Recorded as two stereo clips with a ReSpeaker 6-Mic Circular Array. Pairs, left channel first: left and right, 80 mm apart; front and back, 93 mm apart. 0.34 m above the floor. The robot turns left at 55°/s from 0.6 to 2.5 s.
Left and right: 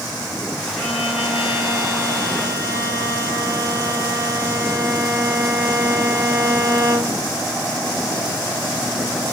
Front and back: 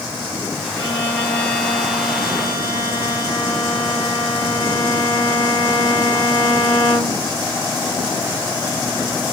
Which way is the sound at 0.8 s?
20° right.